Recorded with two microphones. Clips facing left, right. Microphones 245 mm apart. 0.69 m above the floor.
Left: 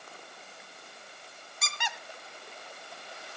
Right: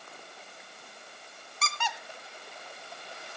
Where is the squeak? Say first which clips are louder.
Right 4 dB; 15° left (ahead or behind), 1.1 m.